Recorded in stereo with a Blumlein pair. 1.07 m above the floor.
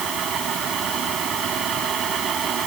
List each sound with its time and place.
0.0 s a fan: 30° right